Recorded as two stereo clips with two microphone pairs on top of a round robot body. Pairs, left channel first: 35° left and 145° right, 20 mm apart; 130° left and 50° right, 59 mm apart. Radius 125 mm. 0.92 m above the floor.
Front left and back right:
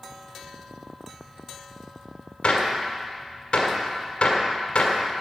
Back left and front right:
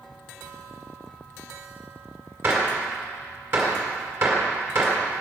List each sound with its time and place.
2.4 s a gunshot: straight ahead, 1.9 m